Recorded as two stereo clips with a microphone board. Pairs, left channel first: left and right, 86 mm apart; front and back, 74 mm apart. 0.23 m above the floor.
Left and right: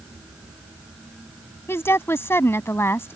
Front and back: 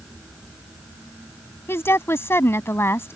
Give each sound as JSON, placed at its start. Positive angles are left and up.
{"t": 1.7, "sound": "a woman speaking", "azimuth_deg": 40}